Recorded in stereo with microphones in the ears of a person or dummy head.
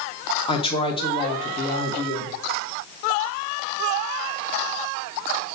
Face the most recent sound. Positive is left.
turn(degrees=30)  # may be behind; listen again after turning